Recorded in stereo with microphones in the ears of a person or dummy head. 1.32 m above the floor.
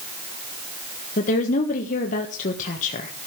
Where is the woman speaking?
40° left (ahead or behind), 1.6 m.